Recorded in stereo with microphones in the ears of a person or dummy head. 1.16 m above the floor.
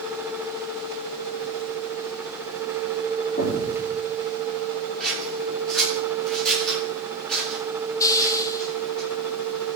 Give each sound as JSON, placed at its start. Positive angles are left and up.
{"t": 3.4, "sound": "an explosion", "side_deg": 45, "distance_m": 3.0}
{"t": 5.0, "sound": "scissors", "side_deg": 10, "distance_m": 9.5}
{"t": 8.0, "sound": "a hiss", "side_deg": 25, "distance_m": 1.2}